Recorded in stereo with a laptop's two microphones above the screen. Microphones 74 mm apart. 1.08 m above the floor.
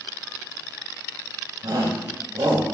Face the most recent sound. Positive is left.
turn(degrees=-75)  # may be behind; listen again after turning